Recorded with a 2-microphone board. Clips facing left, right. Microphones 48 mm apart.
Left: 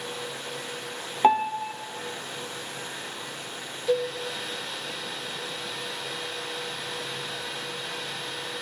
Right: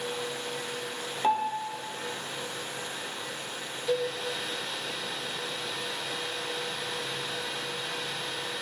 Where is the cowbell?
20° left (ahead or behind), 0.8 m.